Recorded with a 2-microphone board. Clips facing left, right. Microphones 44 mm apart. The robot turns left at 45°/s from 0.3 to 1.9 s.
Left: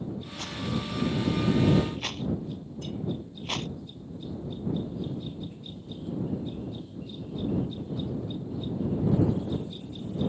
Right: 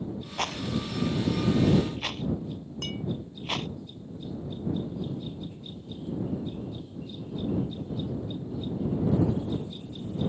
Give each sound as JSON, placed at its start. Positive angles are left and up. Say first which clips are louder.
{"t": 0.4, "sound": "a rattle", "louder": "right 3 dB", "side_deg": -80}
{"t": 2.8, "sound": "a clink", "louder": "right 2 dB", "side_deg": -75}